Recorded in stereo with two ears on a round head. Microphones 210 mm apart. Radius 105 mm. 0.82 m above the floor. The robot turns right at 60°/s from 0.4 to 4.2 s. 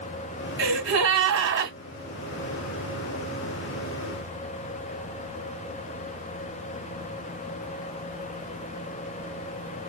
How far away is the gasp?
About 1.6 m.